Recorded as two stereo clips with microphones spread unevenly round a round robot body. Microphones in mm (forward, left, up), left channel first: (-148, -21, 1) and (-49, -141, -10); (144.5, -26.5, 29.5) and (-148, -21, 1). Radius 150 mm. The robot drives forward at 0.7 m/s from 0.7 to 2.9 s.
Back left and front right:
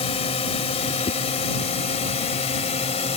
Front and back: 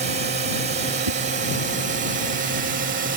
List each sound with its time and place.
0.0 s a drone: 135° left; by 3.2 s 140° left
1.1 s a whoosh: 170° left